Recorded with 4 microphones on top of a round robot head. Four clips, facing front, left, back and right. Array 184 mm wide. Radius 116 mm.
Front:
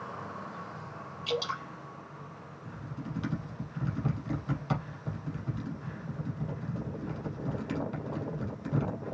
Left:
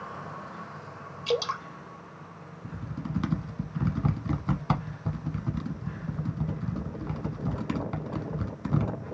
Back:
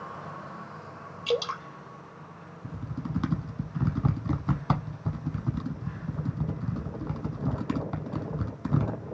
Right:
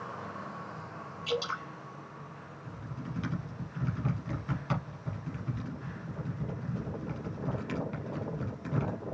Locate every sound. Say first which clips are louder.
1.3 s dripping: left 5 dB, back 5 dB; 135° left, 3 m
2.6 s typing on a keyboard: left 6 dB, back 5 dB; 145° left, 1.1 m